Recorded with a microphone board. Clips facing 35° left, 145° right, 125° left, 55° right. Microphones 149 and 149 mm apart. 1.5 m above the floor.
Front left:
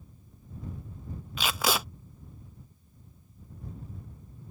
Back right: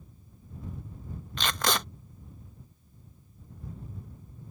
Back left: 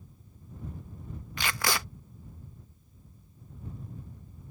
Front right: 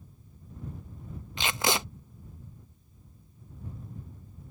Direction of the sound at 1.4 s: 35° right.